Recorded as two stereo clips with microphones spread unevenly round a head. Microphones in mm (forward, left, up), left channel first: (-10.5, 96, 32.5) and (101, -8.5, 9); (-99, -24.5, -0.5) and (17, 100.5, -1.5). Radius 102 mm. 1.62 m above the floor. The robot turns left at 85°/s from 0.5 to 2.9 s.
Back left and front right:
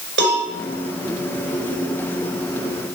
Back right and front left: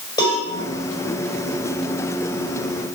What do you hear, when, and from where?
0.2 s a cowbell: 60° right, 6 m